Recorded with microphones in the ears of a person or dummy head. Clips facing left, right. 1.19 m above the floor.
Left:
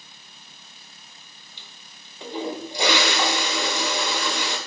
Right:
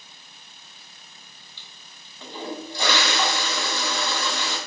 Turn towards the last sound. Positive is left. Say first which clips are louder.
# left 1 dB
turn(degrees=20)  # may be behind; listen again after turning